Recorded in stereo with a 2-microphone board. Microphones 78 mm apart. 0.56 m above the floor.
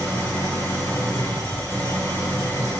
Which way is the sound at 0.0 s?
35° left (ahead or behind).